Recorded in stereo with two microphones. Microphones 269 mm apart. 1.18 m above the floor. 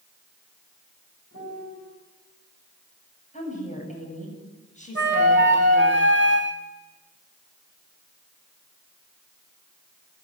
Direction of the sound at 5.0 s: 45° right (ahead or behind).